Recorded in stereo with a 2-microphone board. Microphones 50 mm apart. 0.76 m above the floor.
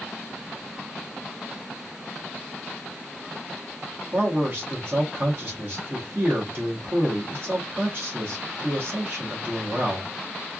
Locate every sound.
4.1 s a man speaking: 45° right (ahead or behind), 1.3 m